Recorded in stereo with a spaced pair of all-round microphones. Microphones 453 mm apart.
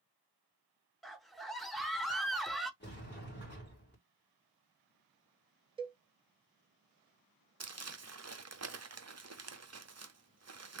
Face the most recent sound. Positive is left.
turn(degrees=-35)  # may be behind; listen again after turning